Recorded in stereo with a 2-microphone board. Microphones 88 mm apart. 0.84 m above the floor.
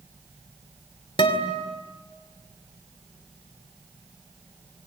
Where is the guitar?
70° left (ahead or behind), 2.5 m.